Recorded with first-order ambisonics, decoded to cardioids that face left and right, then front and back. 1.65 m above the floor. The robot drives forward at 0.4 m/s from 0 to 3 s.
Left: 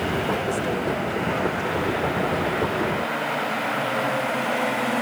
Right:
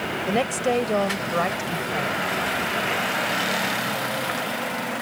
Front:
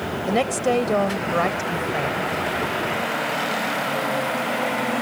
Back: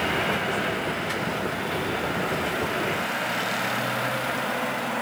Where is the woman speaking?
30° right; by 2.2 s 35° right.